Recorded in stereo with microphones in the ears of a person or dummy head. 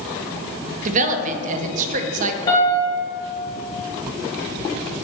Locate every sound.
0.8 s a woman speaking: 45° right (ahead or behind), 0.7 m
2.5 s a piano: 20° left (ahead or behind), 1.7 m